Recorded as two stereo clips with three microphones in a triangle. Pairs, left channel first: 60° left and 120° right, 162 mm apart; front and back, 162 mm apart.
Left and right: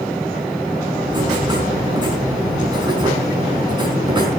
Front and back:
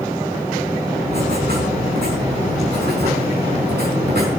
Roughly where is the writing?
Behind.